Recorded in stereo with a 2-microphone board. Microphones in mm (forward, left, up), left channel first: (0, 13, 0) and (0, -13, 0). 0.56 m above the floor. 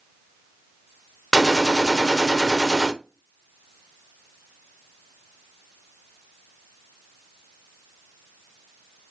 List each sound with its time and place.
1.3 s a gunshot: 5° left (ahead or behind), 0.7 m